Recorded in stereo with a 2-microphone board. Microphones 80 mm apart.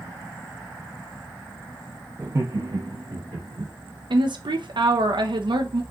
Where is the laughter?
30° right (ahead or behind), 0.7 m; by 3.7 s 70° right (ahead or behind), 2.5 m.